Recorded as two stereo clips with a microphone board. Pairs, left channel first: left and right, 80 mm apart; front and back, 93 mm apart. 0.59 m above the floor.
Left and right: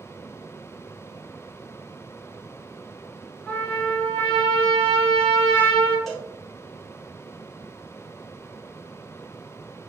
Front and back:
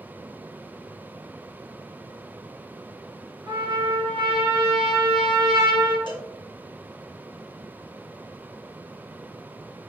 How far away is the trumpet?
About 1.9 m.